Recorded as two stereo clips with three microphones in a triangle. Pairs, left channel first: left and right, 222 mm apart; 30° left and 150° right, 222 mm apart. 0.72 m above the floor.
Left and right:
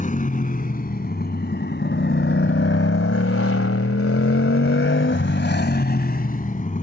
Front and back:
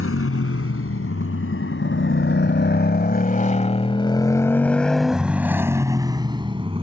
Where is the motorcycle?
35° left; by 6.8 s 145° left.